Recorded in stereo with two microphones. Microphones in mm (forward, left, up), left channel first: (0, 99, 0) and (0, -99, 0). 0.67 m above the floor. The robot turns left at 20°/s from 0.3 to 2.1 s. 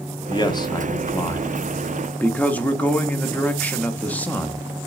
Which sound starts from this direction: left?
A man speaking, at 0.3 s.